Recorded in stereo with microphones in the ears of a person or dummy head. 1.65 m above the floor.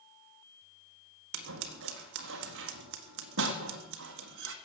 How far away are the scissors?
About 1.6 m.